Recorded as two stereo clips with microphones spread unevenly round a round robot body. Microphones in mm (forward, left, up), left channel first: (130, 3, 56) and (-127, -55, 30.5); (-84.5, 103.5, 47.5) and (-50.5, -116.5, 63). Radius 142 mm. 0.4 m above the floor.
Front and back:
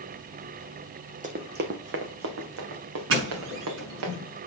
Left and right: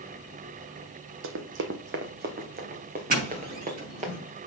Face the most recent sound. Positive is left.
turn(degrees=-130)